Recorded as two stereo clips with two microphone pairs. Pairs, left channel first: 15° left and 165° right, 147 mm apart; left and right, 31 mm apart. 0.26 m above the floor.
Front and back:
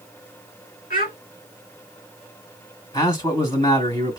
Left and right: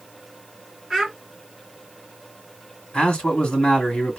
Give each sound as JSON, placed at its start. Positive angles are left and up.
{"t": 0.9, "sound": "a child speaking", "azimuth_deg": 10, "distance_m": 2.0}
{"t": 2.9, "sound": "a man speaking", "azimuth_deg": 65, "distance_m": 1.6}